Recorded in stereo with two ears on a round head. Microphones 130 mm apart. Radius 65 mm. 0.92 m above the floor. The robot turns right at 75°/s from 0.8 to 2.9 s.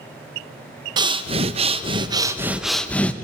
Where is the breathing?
135° right, 0.5 m; by 3.1 s 10° left, 0.5 m.